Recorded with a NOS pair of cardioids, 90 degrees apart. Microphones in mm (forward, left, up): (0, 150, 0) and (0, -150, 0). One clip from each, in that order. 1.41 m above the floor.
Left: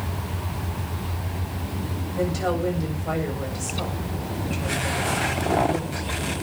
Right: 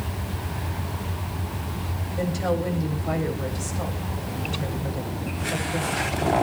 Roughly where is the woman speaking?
Ahead.